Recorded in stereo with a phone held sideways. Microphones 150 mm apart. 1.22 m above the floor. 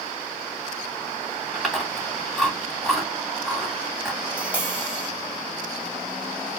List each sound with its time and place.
1.6 s chewing: centre (ahead or behind), 3 m
4.3 s tapping: 10° right (ahead or behind), 2.5 m